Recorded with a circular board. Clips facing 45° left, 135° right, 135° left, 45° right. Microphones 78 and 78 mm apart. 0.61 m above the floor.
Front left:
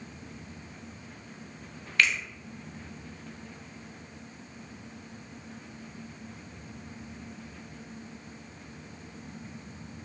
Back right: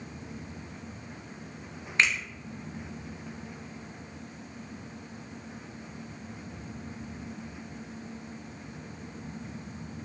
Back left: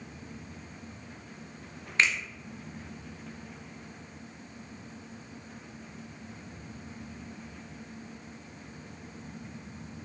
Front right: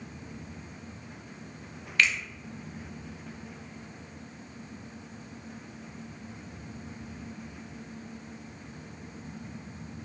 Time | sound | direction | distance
2.0 | a finger snap | straight behind | 0.7 m